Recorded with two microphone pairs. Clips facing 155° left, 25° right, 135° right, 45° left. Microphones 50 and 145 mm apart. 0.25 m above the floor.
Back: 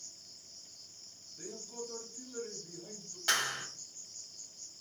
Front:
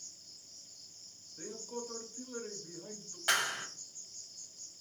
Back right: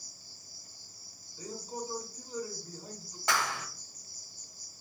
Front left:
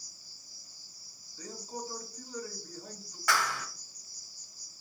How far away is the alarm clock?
No alarm clock in this recording.